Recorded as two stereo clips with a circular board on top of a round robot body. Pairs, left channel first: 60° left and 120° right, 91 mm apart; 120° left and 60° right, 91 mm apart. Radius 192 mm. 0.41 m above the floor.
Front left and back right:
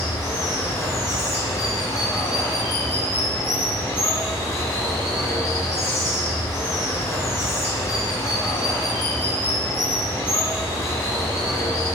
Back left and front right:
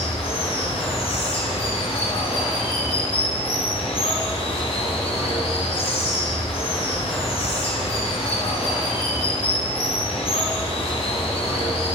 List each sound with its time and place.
0.0 s running water: 125° left, 1.4 m